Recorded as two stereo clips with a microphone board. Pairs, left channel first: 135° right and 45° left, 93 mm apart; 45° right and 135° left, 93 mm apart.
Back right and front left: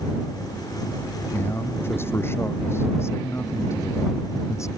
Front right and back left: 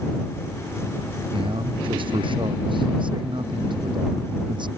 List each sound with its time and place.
1.3 s a man speaking: 160° left; by 4.7 s 170° left